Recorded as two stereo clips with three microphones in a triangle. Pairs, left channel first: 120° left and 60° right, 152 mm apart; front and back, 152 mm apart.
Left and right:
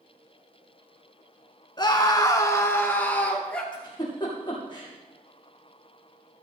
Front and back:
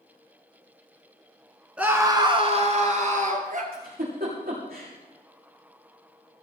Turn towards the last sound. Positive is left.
turn(degrees=180)